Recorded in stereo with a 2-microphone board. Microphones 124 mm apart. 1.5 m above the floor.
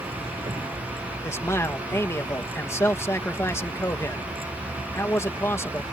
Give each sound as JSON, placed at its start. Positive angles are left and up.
{"t": 0.0, "sound": "a vehicle", "side_deg": -45}
{"t": 1.2, "sound": "a man speaking", "side_deg": 20}